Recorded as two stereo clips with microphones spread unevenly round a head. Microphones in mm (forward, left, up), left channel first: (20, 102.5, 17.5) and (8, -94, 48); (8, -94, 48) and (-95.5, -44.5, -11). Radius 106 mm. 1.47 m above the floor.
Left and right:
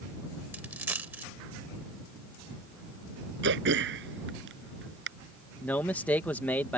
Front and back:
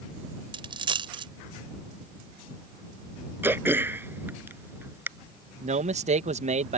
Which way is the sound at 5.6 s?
170° left.